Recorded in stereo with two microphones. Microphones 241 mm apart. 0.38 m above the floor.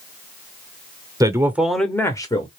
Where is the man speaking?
15° right (ahead or behind), 0.8 m; by 2.5 s 20° left (ahead or behind), 0.9 m.